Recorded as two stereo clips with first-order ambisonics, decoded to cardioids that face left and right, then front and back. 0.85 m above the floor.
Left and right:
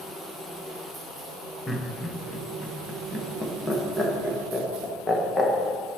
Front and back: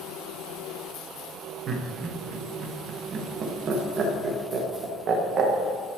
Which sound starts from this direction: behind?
Laughter, at 1.7 s.